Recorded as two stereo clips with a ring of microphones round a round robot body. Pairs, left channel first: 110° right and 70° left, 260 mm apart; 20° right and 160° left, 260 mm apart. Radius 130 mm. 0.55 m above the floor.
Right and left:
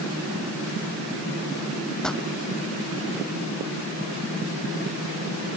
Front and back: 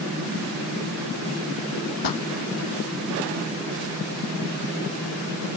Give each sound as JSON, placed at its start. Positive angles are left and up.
{"t": 2.0, "sound": "a pop", "azimuth_deg": -25}